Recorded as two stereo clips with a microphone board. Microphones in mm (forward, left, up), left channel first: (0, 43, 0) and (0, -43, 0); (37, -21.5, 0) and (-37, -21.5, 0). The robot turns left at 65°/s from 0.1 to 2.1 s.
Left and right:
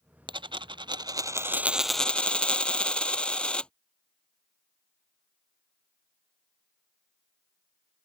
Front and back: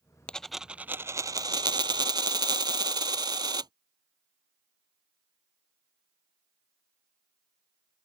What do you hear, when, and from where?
0.3 s a dropped coin: 75° right; by 3.7 s 170° left